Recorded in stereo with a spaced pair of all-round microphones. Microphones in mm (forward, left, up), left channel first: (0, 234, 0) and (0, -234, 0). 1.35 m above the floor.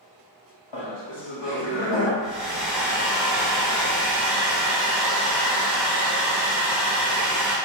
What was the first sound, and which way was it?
Laughter, 70° left (ahead or behind).